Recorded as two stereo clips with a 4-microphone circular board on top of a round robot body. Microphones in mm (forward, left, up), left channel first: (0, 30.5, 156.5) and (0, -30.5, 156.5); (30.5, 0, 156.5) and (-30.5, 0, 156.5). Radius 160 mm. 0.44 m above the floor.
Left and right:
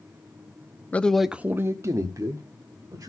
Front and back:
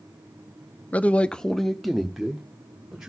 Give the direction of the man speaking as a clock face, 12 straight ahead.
10 o'clock.